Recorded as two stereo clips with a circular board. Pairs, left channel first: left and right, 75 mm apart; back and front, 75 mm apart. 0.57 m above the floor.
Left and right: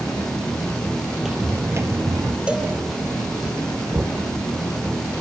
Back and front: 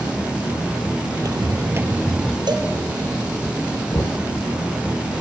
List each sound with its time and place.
1.1 s footsteps: 5° right, 1.0 m; by 2.4 s 90° right, 0.9 m
2.5 s a cowbell: 15° right, 2.5 m
3.9 s knocking: 140° right, 0.9 m